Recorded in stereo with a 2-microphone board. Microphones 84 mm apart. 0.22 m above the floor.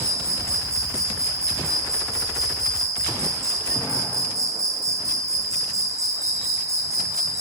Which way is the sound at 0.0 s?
40° right (ahead or behind).